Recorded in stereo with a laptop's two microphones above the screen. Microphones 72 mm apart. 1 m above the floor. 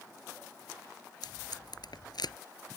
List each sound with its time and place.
1.2 s tape being pulled: 70° left (ahead or behind)